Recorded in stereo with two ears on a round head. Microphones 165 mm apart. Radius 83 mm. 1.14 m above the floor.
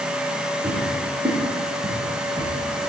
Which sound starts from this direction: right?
Footsteps, at 0.6 s.